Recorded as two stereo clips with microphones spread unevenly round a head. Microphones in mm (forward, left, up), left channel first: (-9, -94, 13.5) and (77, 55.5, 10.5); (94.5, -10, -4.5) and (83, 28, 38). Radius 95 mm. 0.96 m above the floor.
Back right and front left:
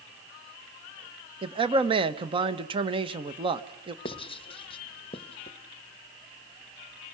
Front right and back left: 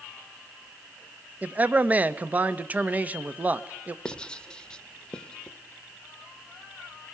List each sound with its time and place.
1.4 s a man speaking: 15° left, 1.2 m
4.0 s writing: 65° right, 1.3 m